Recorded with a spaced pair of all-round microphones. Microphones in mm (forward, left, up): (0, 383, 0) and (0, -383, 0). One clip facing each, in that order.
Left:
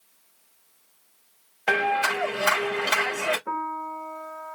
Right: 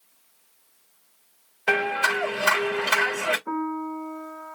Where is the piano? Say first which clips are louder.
Right 8 dB; 20° left (ahead or behind), 0.5 m.